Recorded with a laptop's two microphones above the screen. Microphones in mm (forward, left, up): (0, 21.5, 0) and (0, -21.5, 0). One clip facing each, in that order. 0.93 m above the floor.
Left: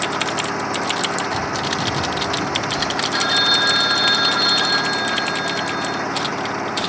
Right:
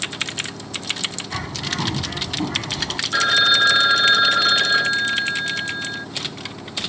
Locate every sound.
0.0 s an engine running: 70° left (ahead or behind)
1.3 s a bird: 40° right (ahead or behind)
3.1 s a phone ringing: 15° right (ahead or behind)